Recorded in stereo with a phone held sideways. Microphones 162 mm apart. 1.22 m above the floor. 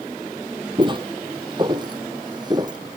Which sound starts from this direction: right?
Footsteps, at 0.8 s.